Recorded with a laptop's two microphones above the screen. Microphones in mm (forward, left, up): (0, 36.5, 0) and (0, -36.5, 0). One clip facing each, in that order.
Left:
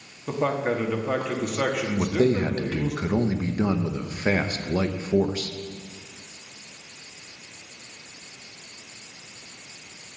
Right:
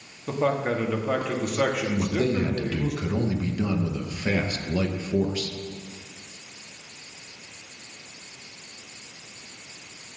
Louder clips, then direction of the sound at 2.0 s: Left 5 dB; 35° left (ahead or behind).